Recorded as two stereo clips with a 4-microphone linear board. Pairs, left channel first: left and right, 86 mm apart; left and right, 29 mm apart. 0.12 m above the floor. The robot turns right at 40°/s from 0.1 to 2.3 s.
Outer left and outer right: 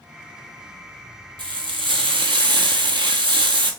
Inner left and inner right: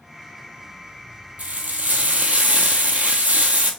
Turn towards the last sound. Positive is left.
turn(degrees=-75)